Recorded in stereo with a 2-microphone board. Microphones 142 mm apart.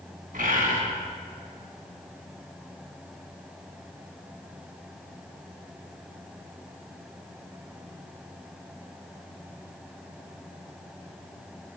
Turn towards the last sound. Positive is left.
turn(degrees=-80)